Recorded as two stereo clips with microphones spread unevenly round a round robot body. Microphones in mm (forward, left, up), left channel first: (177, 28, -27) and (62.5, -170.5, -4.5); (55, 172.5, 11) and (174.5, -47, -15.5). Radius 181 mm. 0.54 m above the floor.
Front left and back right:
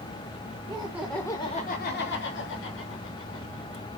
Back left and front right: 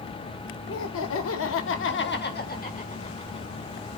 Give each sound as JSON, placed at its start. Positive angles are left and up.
{"t": 0.7, "sound": "laughter", "azimuth_deg": 160, "distance_m": 1.3}